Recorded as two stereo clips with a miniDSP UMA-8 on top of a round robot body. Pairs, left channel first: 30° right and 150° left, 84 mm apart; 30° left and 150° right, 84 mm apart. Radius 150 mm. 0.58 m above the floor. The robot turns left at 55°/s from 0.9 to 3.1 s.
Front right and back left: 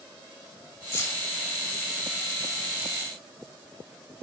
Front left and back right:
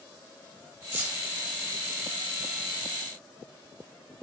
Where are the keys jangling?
85° right, 2.5 m; by 1.2 s 100° right, 2.5 m.